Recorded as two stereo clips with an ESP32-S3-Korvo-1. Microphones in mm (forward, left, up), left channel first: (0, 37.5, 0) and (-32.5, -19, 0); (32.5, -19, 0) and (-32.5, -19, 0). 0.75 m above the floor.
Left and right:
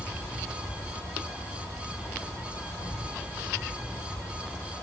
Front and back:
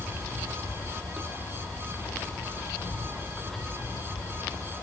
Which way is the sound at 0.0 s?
35° left.